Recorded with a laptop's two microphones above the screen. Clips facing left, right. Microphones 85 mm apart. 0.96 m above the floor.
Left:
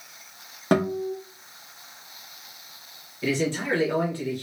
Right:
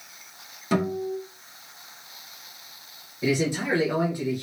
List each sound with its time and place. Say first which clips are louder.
0.7 s a guitar: left 2 dB; 60° left (ahead or behind), 1.0 m
3.2 s a man speaking: right 1 dB; 15° right (ahead or behind), 0.9 m